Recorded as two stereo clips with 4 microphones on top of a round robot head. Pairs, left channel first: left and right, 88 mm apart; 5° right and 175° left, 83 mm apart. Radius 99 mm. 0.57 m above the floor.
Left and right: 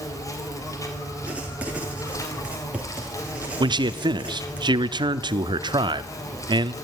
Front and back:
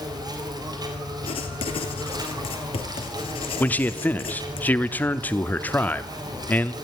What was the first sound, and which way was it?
An insect, 140° left.